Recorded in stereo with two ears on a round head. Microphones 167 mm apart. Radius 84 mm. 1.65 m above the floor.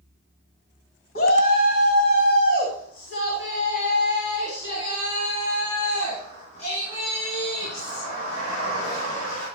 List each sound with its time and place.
1.1 s a shout: 55° left (ahead or behind), 2 m; by 9.4 s 40° left (ahead or behind), 11 m